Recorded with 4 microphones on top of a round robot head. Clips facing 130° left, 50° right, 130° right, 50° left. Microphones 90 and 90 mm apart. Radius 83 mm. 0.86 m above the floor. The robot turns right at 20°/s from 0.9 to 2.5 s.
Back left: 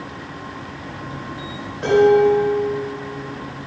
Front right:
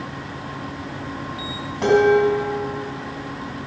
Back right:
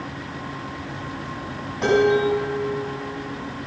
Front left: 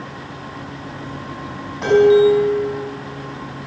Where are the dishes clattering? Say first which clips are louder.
Back left 2 dB, front left 7 dB; 40° right, 5 m; by 2.7 s 25° right, 5 m.